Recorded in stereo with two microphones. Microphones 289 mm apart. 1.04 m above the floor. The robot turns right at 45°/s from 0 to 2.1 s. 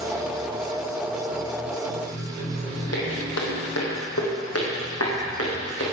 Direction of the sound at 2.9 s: 65° left (ahead or behind).